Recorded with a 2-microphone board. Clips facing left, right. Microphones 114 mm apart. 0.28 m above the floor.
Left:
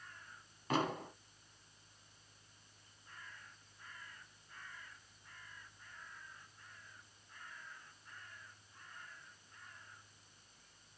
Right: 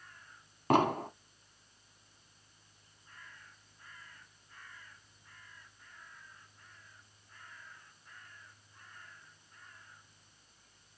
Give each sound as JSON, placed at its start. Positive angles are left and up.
{"t": 0.7, "sound": "an explosion", "side_deg": -60, "distance_m": 0.6}